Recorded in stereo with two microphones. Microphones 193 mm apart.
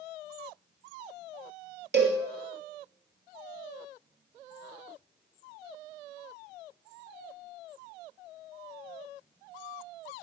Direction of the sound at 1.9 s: 60° right (ahead or behind).